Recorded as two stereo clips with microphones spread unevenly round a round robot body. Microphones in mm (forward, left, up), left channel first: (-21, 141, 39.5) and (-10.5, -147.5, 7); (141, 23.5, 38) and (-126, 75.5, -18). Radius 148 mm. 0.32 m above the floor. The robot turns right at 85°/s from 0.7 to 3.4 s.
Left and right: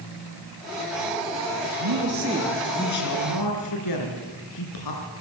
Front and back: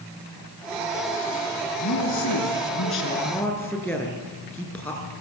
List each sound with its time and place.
1.8 s a woman speaking: 60° right, 5 m; by 5.1 s 75° left, 5 m